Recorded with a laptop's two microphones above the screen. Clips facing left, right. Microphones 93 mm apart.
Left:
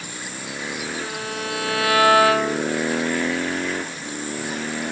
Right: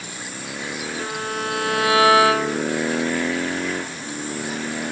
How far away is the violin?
About 3.5 m.